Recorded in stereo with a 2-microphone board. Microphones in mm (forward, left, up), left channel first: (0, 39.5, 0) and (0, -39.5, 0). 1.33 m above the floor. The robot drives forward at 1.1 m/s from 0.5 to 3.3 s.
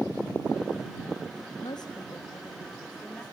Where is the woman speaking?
65° left (ahead or behind), 1.1 m; by 3.2 s 25° left (ahead or behind), 2.5 m.